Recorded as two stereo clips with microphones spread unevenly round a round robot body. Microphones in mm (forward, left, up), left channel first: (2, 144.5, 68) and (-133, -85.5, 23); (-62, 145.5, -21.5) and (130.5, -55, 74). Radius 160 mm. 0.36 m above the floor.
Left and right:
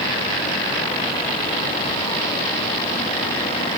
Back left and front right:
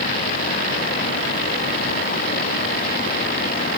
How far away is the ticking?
No ticking in this recording.